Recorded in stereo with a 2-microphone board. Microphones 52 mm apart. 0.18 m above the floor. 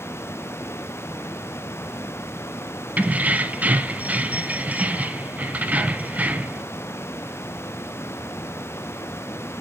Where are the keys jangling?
30° right (ahead or behind), 1.0 m.